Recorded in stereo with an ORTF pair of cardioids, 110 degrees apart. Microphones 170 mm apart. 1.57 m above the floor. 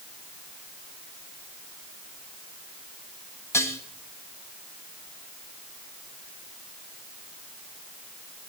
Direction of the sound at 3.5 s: 15° left.